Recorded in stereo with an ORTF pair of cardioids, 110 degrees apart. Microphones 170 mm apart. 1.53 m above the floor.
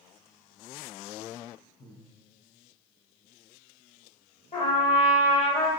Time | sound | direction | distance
1.8 | breathing | 50° left | 1.5 m
4.5 | a trumpet | 40° left | 1.3 m